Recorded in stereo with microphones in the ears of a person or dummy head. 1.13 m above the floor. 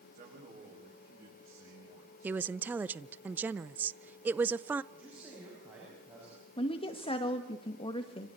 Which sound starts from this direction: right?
A man speaking, at 0.1 s.